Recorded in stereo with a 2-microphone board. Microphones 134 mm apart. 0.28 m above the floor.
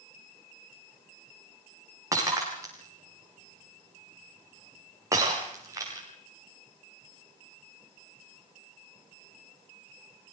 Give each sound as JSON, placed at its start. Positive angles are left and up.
{"t": 2.1, "sound": "breaking glass", "side_deg": -25, "distance_m": 9.0}